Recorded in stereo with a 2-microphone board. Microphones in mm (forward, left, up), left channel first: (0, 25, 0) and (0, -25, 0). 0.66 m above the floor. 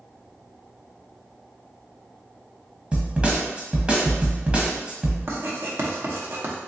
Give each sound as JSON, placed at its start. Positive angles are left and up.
{"t": 2.9, "sound": "a snare drum", "side_deg": -20, "distance_m": 0.8}
{"t": 5.3, "sound": "writing", "side_deg": -50, "distance_m": 0.7}